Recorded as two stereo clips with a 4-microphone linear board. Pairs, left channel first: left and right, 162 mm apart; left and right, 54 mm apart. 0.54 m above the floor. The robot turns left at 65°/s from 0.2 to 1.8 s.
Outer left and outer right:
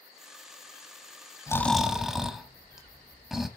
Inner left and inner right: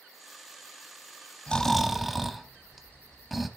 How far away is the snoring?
About 0.9 m.